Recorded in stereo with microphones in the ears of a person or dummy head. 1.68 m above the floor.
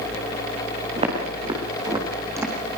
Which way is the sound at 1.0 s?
35° right (ahead or behind).